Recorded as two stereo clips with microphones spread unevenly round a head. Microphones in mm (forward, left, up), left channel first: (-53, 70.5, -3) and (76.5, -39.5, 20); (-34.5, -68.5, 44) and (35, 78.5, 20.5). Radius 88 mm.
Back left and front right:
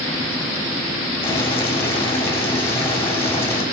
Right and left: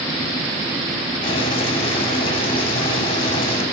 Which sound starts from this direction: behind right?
Boiling, at 1.2 s.